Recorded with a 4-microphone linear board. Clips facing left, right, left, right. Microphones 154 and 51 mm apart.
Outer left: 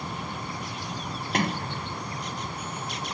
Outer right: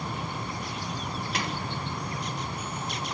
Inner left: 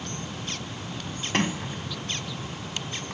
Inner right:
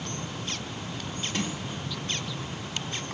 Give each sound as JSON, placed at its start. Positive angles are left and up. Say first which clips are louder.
{"t": 1.3, "sound": "a sliding door", "louder": "outer left 8 dB, inner left 8 dB", "side_deg": 50, "distance_m": 0.7}